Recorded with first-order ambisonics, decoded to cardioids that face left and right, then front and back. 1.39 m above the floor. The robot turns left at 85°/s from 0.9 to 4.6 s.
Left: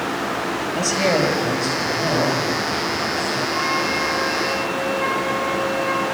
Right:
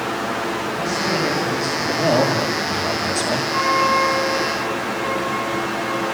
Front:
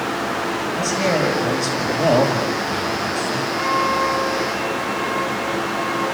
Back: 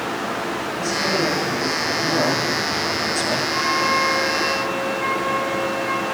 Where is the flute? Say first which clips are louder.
Right 7 dB, front 1 dB; 110° right, 8.5 m; by 6.1 s 155° left, 8.5 m.